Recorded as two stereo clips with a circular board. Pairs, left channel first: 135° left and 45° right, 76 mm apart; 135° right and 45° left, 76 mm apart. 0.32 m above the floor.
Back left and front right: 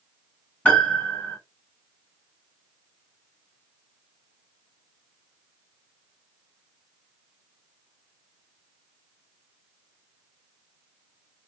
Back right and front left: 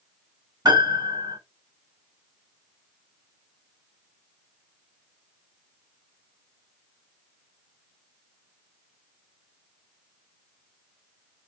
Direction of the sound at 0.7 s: 65° left.